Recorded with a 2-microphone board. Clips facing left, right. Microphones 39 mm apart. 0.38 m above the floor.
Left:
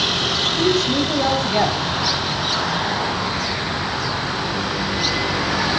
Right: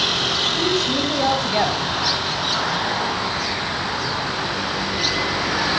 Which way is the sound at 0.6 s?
Centre (ahead or behind).